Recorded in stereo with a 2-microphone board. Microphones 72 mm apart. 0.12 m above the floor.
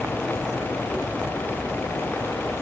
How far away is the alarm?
No alarm in this recording.